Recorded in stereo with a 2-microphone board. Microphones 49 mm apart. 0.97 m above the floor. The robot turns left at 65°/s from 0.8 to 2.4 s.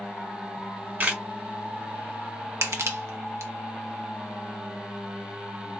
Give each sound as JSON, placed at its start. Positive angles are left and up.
{"t": 0.6, "sound": "a camera shutter", "side_deg": -40, "distance_m": 1.0}
{"t": 2.6, "sound": "crushing", "side_deg": -80, "distance_m": 1.0}